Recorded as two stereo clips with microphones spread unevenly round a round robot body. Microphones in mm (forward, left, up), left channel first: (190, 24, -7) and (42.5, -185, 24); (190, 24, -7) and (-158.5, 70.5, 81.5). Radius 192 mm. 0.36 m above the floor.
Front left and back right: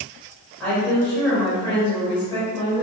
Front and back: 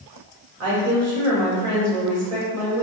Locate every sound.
0.6 s a woman speaking: 130° left, 1.5 m